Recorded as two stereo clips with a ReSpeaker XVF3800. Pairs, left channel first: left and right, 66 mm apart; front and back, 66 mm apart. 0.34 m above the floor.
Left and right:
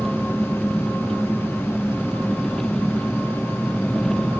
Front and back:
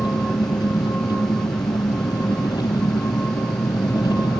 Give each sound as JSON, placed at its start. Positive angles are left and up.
{"t": 0.0, "sound": "an engine running", "azimuth_deg": 5}